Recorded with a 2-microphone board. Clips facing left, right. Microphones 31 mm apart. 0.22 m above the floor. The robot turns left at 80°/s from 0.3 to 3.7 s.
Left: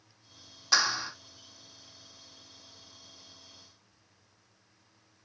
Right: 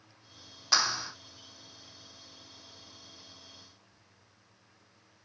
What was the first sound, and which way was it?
A clap, 170° right.